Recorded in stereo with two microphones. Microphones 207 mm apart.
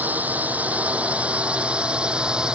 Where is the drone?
10° right (ahead or behind); by 2.6 s 5° right (ahead or behind).